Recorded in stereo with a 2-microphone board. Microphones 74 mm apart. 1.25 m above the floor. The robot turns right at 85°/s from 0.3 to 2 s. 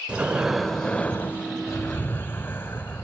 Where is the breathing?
25° right, 1.1 m; by 3.0 s 120° left, 1.1 m.